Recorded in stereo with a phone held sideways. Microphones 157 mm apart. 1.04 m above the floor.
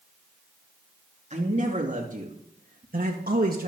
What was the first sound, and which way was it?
A man speaking, 45° right (ahead or behind).